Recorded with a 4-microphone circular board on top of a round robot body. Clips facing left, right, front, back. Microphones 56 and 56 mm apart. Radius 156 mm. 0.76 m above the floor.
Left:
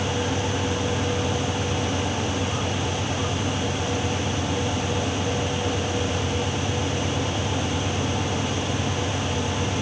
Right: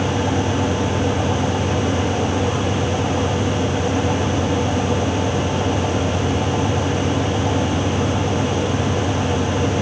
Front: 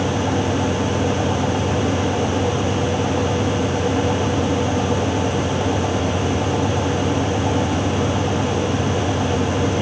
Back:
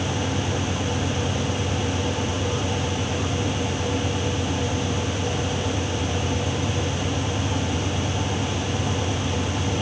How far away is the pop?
I don't hear a pop.